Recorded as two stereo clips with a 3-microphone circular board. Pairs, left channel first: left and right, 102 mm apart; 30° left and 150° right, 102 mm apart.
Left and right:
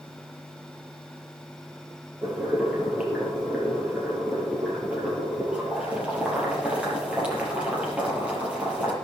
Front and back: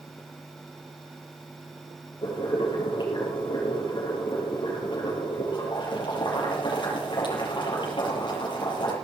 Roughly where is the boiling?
Ahead.